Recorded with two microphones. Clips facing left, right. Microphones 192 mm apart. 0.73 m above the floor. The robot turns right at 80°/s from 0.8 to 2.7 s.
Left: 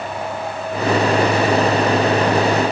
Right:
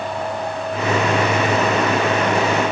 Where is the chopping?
No chopping in this recording.